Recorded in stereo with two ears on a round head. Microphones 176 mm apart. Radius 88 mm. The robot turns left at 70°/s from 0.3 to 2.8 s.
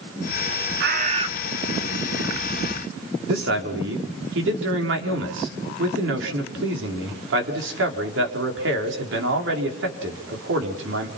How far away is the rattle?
I don't hear a rattle.